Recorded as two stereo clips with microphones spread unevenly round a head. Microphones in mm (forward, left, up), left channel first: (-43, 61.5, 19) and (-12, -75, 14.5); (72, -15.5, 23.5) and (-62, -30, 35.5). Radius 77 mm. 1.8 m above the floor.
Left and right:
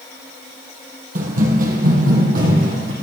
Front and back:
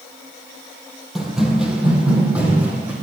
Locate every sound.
1.1 s running footsteps: 90° right, 3 m; by 2.9 s 95° right, 5.5 m